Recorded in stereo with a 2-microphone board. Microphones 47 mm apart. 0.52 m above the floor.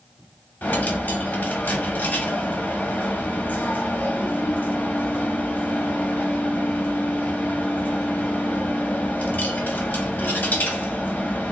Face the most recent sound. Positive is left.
turn(degrees=40)  # may be behind; listen again after turning